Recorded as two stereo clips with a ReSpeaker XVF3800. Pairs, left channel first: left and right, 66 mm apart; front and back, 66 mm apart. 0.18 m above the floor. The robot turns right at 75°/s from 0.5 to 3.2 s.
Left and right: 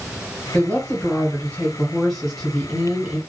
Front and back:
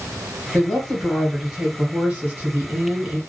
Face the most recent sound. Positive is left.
turn(degrees=-120)